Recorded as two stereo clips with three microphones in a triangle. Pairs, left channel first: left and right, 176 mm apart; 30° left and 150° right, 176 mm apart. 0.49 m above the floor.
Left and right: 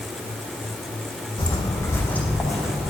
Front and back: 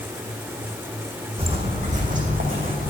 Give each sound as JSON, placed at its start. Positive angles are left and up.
{"t": 1.4, "sound": "footsteps", "azimuth_deg": 155, "distance_m": 1.6}